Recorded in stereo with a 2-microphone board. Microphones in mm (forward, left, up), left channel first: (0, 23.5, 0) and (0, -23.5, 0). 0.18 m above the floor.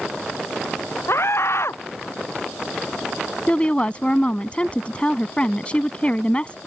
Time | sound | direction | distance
1.1 | a scream | 65° left (ahead or behind) | ?
3.5 | a woman speaking | 25° left (ahead or behind) | ?